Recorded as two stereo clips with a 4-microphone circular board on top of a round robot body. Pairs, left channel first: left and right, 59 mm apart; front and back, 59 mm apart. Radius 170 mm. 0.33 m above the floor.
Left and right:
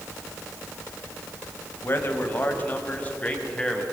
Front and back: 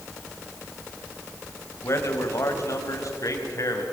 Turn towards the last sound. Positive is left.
turn(degrees=15)